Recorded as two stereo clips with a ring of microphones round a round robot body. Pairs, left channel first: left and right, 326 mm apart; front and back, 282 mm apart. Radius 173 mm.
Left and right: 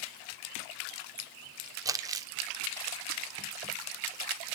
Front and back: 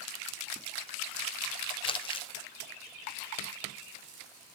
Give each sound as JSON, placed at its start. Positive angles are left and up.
{"t": 1.9, "sound": "crumpling", "azimuth_deg": -30, "distance_m": 0.7}